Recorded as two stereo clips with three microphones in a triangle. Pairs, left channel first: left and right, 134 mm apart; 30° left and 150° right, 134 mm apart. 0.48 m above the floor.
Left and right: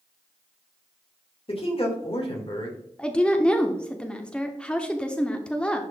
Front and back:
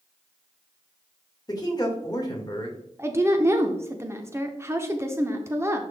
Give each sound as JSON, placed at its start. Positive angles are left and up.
{"t": 1.5, "sound": "a man speaking", "azimuth_deg": 75, "distance_m": 1.6}
{"t": 3.0, "sound": "a woman speaking", "azimuth_deg": 165, "distance_m": 0.7}